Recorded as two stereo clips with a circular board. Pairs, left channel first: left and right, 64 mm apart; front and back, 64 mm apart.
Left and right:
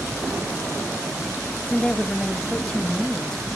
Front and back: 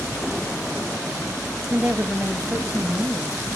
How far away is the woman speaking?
About 0.9 m.